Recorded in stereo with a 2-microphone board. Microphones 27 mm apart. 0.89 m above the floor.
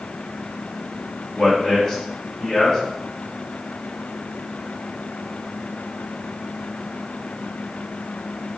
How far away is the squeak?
I don't hear a squeak.